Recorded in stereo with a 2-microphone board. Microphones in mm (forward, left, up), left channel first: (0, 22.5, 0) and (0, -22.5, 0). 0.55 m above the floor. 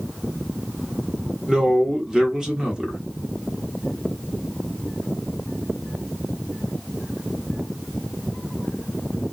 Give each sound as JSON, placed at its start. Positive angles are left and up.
{"t": 1.5, "sound": "a man speaking", "side_deg": -20, "distance_m": 1.0}